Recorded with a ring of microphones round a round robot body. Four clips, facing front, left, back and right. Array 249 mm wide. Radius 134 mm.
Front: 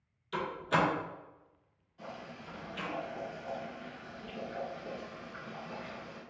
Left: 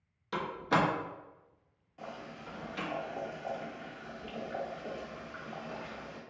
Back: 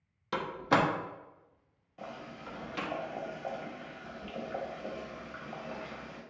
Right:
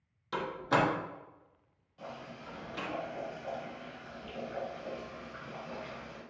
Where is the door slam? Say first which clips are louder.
Even, back 3 dB; straight behind, 1.0 m.